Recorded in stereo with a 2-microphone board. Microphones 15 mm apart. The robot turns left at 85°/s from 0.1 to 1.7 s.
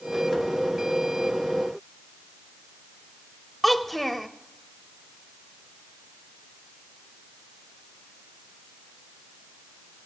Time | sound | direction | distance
3.6 | a child speaking | 15° left (ahead or behind) | 0.7 m